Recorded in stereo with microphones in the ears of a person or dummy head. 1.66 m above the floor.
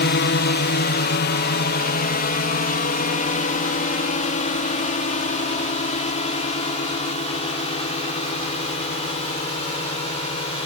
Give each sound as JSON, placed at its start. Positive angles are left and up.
{"t": 0.0, "sound": "a drone", "side_deg": 45}